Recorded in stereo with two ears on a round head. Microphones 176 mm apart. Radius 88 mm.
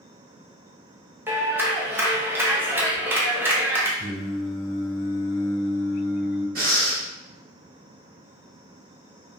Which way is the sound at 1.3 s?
10° right (ahead or behind).